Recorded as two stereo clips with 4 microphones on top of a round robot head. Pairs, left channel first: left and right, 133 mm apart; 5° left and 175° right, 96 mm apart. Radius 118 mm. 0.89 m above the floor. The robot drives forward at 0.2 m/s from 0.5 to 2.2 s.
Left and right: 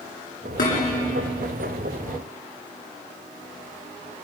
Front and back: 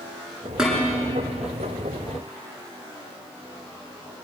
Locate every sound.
0.6 s dishes clattering: 100° left, 8 m